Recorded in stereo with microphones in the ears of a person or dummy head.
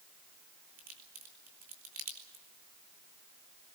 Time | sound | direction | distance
0.8 | a crack | 35° right (ahead or behind) | 3.5 m